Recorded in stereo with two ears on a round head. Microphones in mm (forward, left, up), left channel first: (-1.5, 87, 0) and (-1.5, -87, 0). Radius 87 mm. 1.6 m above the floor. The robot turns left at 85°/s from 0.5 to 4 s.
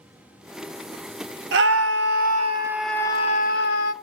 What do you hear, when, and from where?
1.5 s a scream: 65° right, 1.1 m; by 3.9 s 90° left, 1.1 m